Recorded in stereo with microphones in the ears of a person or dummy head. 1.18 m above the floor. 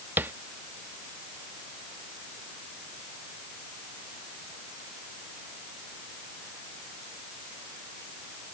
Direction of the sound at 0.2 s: 10° right (ahead or behind).